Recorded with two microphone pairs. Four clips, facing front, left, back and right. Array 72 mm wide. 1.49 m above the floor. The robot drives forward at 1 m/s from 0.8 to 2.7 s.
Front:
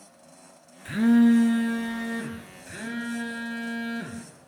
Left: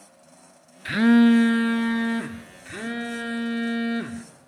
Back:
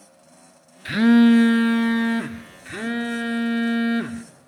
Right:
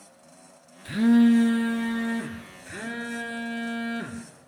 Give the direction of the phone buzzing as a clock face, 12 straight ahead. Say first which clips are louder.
Left 2 dB, back 4 dB; 8 o'clock.